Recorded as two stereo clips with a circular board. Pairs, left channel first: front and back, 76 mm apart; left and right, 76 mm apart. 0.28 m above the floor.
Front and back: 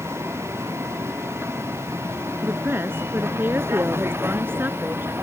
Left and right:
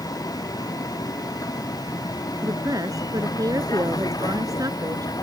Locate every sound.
0.0 s a vehicle: 125° left; by 5.2 s 120° left
2.4 s a woman speaking: 120° right